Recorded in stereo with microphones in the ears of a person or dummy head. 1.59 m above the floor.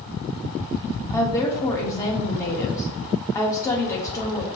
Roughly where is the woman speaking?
Centre.